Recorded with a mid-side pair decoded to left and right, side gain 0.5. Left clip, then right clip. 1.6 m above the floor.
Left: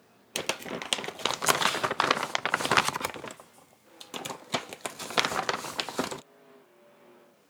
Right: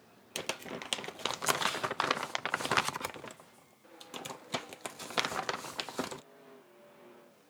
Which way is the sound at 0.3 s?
40° left.